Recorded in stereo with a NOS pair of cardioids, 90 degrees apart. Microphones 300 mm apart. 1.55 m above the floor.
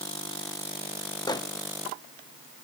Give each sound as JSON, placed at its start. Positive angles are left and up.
{"t": 1.3, "sound": "a microwave", "azimuth_deg": 15, "distance_m": 1.0}